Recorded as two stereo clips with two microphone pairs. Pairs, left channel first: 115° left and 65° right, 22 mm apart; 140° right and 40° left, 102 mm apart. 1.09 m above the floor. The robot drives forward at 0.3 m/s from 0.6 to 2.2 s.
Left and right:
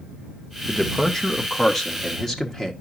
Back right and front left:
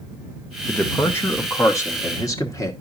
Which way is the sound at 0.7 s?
170° left.